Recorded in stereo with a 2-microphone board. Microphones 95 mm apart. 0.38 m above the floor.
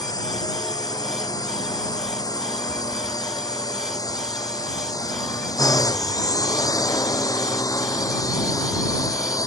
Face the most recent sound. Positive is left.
turn(degrees=35)  # may be behind; listen again after turning